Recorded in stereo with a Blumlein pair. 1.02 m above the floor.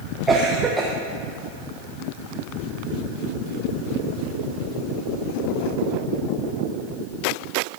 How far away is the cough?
About 0.8 m.